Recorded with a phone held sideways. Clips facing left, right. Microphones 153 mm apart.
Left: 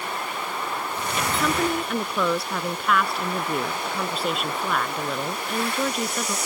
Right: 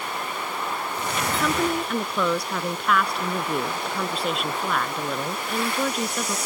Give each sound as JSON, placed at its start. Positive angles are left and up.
{"t": 1.3, "sound": "a woman speaking", "side_deg": 0}